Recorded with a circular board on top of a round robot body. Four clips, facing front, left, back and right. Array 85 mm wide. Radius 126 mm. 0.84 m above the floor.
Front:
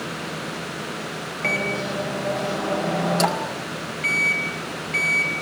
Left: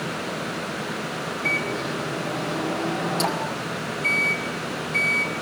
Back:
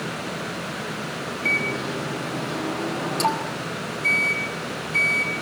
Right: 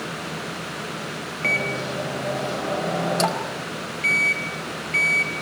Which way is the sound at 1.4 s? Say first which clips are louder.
Right 3 dB, front 2 dB; 45° right.